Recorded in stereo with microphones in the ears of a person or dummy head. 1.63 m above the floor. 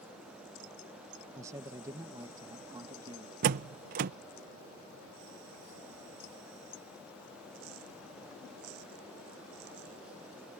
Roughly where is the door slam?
Right.